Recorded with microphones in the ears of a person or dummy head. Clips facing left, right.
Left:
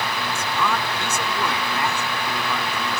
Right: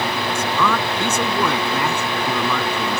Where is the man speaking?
70° right (ahead or behind); by 3.0 s 65° right (ahead or behind).